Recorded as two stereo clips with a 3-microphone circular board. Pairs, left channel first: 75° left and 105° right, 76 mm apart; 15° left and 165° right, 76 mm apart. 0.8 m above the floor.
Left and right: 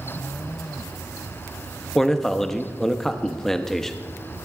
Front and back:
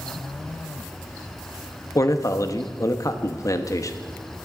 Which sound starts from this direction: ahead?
A man speaking, at 1.9 s.